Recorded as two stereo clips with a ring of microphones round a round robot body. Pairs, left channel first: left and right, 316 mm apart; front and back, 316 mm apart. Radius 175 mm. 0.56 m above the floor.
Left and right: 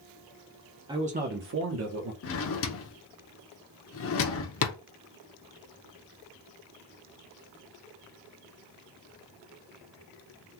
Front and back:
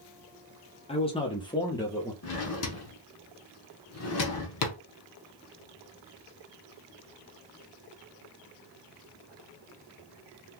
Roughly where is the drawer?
Ahead left.